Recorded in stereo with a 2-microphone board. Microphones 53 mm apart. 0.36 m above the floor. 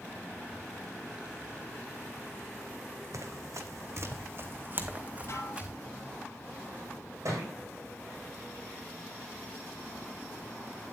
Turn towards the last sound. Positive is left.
turn(degrees=-65)  # may be behind; listen again after turning